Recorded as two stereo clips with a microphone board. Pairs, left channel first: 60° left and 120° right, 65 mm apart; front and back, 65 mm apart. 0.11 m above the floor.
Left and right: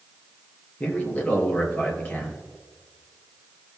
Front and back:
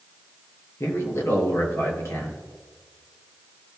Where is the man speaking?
5° left, 2.5 m.